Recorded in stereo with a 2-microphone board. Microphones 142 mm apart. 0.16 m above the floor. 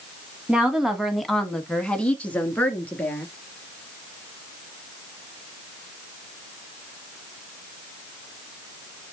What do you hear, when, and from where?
0.5 s a woman speaking: 5° right (ahead or behind), 1.4 m; by 3.2 s 10° left (ahead or behind), 3 m